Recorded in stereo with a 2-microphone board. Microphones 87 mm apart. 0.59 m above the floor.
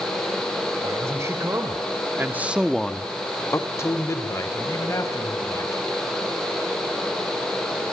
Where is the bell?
No bell in this recording.